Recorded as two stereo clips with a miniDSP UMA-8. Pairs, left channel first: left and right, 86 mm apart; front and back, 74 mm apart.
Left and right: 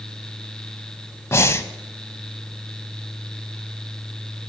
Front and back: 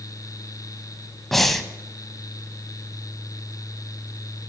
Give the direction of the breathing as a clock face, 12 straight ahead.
9 o'clock.